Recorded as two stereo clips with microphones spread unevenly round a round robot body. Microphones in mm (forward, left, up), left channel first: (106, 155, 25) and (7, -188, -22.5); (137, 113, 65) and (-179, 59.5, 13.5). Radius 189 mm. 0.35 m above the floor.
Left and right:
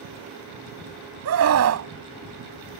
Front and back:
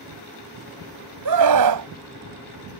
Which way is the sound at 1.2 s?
155° right.